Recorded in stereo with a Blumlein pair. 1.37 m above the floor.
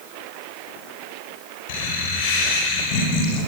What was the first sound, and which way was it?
Laughter, 50° left.